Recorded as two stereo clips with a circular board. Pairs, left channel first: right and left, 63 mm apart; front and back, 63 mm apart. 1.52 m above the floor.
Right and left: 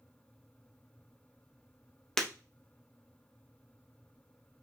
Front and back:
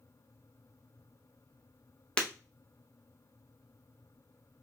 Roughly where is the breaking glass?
Ahead.